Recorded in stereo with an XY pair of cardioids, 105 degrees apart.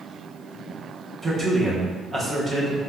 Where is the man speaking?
35° right, 0.9 m.